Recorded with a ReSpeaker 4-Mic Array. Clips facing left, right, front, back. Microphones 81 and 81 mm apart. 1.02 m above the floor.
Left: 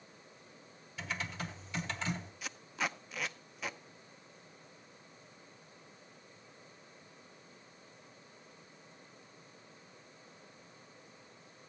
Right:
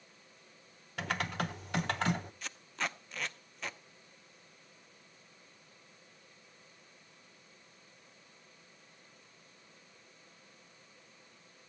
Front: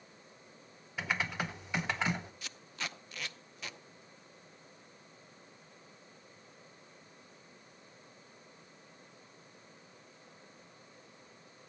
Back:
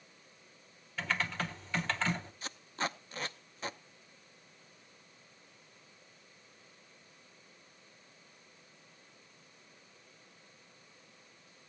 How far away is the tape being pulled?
About 0.6 m.